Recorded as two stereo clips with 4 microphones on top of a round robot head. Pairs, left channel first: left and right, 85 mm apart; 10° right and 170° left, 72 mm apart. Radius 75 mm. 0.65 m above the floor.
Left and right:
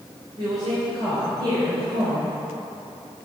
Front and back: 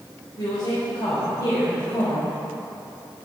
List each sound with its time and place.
0.4 s a woman speaking: 50° right, 4 m